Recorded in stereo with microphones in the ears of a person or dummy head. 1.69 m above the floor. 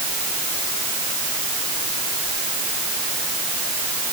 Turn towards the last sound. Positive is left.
No sound to turn to.